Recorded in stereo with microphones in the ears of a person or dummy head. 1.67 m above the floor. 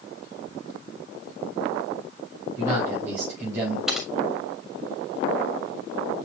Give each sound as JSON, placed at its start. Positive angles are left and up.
{"t": 2.6, "sound": "a man speaking", "side_deg": -15, "distance_m": 5.0}
{"t": 3.9, "sound": "typing on a keyboard", "side_deg": -5, "distance_m": 2.0}